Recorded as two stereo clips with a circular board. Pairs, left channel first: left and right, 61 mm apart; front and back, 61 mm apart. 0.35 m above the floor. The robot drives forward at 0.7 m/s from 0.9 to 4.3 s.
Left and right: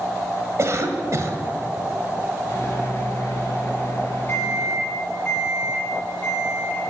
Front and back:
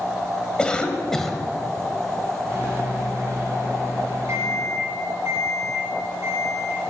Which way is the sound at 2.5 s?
130° left.